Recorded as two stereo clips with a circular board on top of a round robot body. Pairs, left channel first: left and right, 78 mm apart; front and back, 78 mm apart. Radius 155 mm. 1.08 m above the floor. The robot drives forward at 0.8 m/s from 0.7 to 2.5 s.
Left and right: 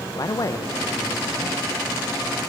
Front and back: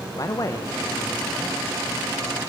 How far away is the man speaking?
About 1.0 m.